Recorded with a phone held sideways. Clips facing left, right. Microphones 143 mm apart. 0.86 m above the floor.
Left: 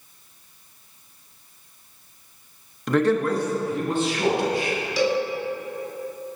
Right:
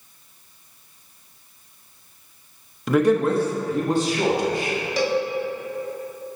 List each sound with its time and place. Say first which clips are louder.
2.9 s a man speaking: right 2 dB; 5° right (ahead or behind), 0.7 m; by 4.8 s 45° right (ahead or behind), 2.5 m
5.0 s a cowbell: even; 55° right (ahead or behind), 1.1 m